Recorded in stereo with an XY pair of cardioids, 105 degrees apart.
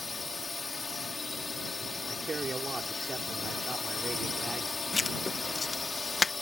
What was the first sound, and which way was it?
A drone, 25° left.